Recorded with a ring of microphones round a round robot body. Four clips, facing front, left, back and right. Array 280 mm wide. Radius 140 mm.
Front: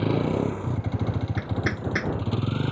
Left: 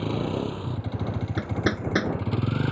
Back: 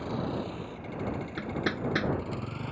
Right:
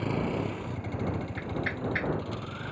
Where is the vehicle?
10° left; by 2.7 s 55° left.